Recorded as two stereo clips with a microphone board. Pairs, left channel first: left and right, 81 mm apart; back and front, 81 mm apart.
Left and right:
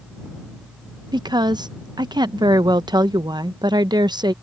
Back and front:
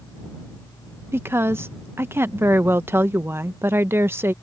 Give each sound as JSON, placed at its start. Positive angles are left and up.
{"t": 1.1, "sound": "a woman speaking", "azimuth_deg": -60}